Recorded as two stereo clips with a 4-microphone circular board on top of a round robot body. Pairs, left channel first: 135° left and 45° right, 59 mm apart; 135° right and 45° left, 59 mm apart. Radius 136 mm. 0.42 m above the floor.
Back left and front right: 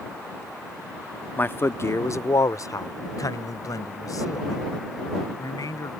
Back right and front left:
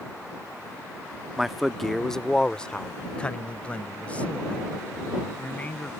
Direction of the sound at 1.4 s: 125° left.